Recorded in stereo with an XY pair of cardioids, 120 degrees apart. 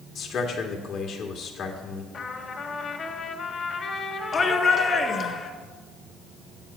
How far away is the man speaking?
About 2 m.